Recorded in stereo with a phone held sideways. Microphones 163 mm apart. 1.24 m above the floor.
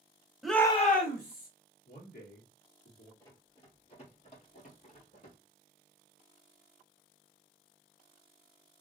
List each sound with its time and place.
0.4 s a shout: centre (ahead or behind), 0.8 m; by 1.5 s 70° left (ahead or behind), 1.0 m
1.9 s a man speaking: 80° left, 2 m
3.2 s running footsteps: 25° left (ahead or behind), 1.6 m; by 5.4 s 60° left (ahead or behind), 2 m